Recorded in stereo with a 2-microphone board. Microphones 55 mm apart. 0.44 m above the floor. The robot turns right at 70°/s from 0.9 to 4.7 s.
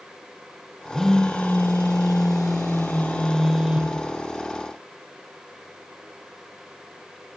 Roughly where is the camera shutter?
No camera shutter in this recording.